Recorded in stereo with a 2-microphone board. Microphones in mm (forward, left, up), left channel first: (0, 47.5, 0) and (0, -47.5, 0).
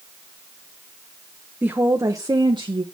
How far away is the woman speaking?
About 0.9 m.